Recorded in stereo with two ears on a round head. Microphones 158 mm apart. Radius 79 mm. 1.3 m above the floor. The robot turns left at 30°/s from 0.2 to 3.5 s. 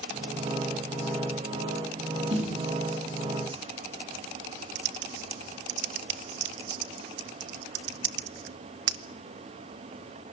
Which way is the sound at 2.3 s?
35° right (ahead or behind).